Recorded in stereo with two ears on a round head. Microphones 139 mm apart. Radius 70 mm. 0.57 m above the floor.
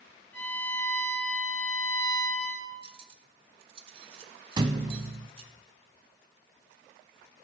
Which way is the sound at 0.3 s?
10° left (ahead or behind).